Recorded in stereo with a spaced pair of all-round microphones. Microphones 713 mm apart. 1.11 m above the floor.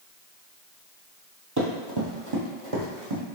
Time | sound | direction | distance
1.6 | running footsteps | 25° right (ahead or behind) | 1.3 m